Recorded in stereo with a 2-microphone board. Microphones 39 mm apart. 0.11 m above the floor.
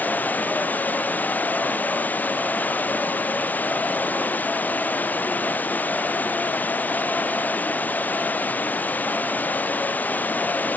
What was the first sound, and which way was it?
Running water, 45° left (ahead or behind).